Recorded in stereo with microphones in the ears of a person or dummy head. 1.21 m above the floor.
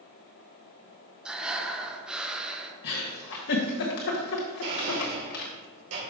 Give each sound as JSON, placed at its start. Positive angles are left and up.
{"t": 1.2, "sound": "breathing", "side_deg": 5, "distance_m": 0.9}
{"t": 2.8, "sound": "a giggle", "side_deg": 45, "distance_m": 1.4}
{"t": 4.6, "sound": "a blender", "side_deg": -65, "distance_m": 3.5}